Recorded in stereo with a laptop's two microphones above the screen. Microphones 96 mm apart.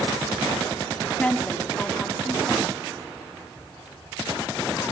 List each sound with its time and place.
1.2 s a woman speaking: 10° left (ahead or behind), 2.5 m